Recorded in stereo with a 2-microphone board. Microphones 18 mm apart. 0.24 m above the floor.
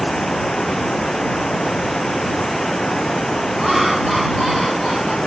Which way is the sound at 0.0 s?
60° left (ahead or behind).